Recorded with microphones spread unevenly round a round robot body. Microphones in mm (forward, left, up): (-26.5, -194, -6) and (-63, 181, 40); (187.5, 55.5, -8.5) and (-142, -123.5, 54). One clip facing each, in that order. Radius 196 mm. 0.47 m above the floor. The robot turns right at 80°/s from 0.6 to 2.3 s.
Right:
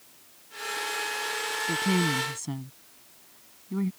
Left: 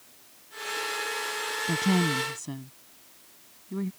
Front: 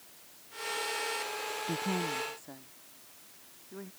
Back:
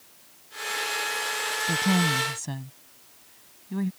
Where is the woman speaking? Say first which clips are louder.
Left 1 dB, back 9 dB; 150° left; by 3.9 s 155° right.